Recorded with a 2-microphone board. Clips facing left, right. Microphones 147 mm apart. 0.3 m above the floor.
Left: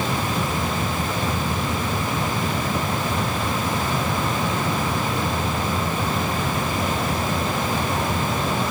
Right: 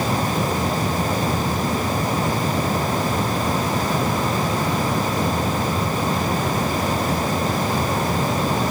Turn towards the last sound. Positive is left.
No sound to turn to.